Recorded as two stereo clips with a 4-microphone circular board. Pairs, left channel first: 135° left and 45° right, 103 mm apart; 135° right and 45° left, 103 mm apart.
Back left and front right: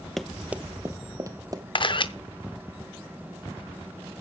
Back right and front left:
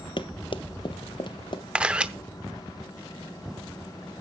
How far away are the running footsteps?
About 0.6 m.